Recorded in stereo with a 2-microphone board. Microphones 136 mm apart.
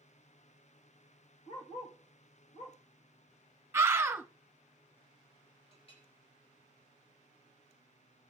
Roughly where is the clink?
Left.